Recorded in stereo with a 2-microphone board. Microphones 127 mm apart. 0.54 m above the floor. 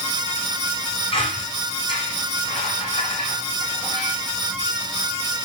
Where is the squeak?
45° left (ahead or behind), 7.5 m.